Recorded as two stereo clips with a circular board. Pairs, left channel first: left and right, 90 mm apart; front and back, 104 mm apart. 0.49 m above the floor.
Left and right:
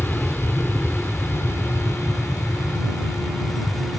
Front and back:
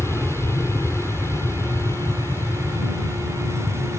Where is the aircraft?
45° left; by 4.0 s 50° left.